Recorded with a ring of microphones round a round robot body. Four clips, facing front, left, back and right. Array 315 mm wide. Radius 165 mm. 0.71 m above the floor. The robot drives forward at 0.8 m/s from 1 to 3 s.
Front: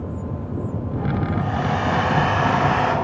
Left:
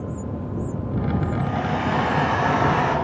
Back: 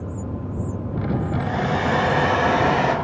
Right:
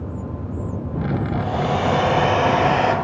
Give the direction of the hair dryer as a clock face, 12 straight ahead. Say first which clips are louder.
Right 3 dB, even; 4 o'clock.